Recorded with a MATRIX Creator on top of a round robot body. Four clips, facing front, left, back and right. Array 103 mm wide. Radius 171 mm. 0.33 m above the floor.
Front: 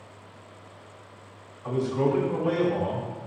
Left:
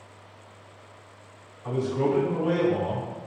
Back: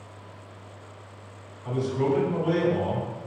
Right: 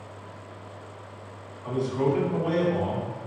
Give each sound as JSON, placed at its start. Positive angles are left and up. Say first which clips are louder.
{"t": 1.6, "sound": "a man speaking", "louder": "even, front 1 dB", "azimuth_deg": 15, "distance_m": 1.9}